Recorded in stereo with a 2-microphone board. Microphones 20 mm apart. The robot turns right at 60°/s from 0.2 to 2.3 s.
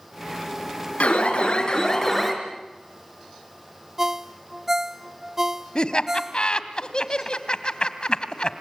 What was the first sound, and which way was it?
An alarm, 95° left.